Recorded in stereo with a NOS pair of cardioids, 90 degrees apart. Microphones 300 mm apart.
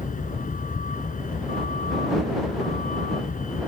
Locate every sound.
0.0 s a vehicle: 25° left